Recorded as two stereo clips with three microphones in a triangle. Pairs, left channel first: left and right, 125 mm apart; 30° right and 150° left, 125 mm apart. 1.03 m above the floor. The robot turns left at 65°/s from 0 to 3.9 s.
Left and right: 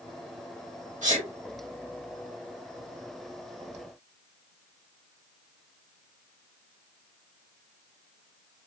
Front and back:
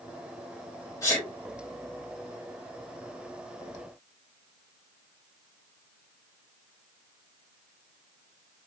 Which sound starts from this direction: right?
A sneeze, at 1.0 s.